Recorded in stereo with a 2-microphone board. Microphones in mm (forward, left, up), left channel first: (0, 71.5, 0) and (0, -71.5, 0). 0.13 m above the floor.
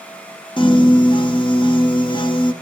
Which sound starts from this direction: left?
A piano, at 0.6 s.